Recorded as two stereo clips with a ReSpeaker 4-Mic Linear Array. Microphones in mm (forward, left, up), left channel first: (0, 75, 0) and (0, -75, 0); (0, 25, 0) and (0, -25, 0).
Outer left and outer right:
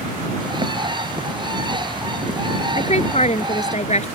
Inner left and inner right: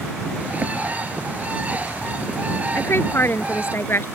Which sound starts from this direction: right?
A bird, at 0.4 s.